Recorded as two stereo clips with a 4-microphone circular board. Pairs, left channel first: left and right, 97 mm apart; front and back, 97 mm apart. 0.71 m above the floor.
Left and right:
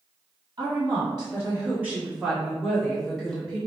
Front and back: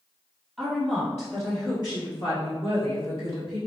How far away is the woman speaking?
About 1.4 m.